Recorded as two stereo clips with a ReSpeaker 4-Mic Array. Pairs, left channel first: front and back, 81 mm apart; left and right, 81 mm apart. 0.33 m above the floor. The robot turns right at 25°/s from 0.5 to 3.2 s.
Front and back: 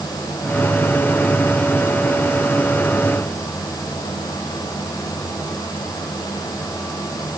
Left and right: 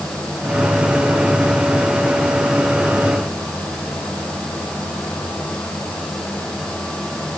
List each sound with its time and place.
Only background noise.